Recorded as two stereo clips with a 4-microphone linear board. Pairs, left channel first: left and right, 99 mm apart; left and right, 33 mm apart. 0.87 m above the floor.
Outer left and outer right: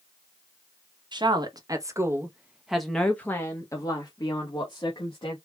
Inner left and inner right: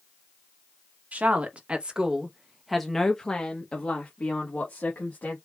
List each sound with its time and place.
1.1 s a woman speaking: 50° right (ahead or behind), 1.2 m; by 5.4 s 55° left (ahead or behind), 1.6 m